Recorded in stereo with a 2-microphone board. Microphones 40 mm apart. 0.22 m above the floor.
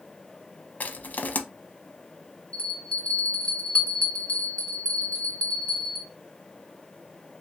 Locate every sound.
0.8 s crushing: 45° left (ahead or behind), 0.6 m
2.5 s a bell: 30° left (ahead or behind), 1.1 m